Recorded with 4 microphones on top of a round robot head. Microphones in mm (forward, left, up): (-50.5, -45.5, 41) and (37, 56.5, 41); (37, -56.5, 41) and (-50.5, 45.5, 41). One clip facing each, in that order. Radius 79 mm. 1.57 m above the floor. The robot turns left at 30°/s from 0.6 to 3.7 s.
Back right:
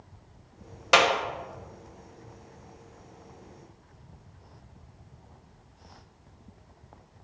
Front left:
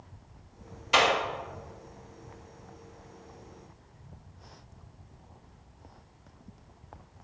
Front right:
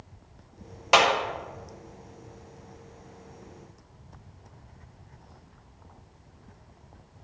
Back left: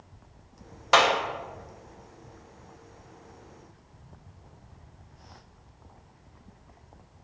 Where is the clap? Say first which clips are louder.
Back right 3 dB, even; 125° right, 1.0 m; by 1.1 s 130° right, 1.0 m.